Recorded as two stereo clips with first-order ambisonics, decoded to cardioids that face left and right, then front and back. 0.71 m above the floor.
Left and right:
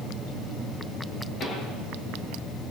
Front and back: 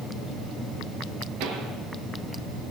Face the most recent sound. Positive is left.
turn(degrees=150)